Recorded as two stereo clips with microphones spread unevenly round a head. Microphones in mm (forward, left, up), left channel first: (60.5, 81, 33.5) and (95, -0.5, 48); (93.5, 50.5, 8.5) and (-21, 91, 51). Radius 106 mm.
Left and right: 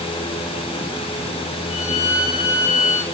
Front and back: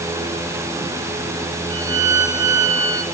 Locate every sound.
1.7 s a violin: 105° left, 7 m